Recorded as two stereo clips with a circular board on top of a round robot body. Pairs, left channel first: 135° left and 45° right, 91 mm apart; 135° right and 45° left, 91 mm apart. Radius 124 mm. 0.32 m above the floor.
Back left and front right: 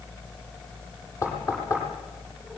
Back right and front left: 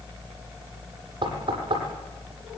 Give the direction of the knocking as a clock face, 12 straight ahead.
9 o'clock.